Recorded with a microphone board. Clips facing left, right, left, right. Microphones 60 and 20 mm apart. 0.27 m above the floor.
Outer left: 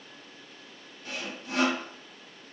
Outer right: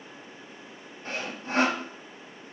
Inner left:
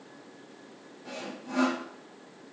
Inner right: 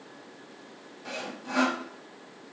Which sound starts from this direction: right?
Sawing, at 1.1 s.